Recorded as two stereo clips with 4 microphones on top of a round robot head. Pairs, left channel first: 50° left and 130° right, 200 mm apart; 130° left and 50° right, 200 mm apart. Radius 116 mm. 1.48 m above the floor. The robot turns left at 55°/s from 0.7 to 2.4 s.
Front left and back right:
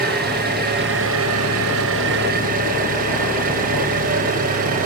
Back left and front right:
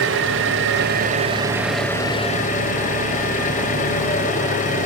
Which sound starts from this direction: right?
An engine running, at 0.0 s.